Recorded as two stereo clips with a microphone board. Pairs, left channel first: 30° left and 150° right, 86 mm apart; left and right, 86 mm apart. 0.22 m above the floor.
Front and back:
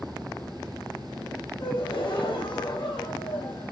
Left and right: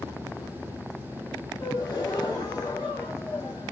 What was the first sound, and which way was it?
A gasp, 45° left.